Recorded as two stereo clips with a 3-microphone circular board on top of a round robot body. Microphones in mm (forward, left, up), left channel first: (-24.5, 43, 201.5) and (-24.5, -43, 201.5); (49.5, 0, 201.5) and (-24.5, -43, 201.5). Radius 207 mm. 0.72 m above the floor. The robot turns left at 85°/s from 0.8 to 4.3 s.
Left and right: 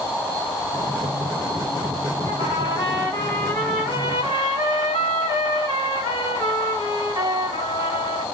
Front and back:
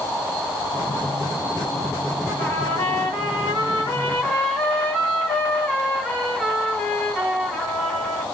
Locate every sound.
2.3 s a trumpet: 120° left, 1.4 m; by 8.2 s 50° right, 1.4 m